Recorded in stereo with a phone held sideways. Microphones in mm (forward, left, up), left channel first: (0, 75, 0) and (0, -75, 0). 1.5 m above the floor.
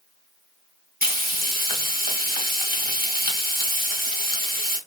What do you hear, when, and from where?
1.0 s frying: 80° right, 1.4 m